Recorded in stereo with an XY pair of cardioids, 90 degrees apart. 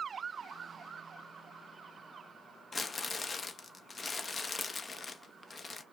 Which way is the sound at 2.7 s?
35° left.